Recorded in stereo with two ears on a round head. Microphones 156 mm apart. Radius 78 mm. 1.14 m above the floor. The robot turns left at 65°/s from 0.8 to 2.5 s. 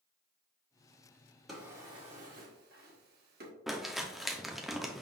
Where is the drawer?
Centre (ahead or behind), 1.2 m; by 3.5 s 60° right (ahead or behind), 1.2 m.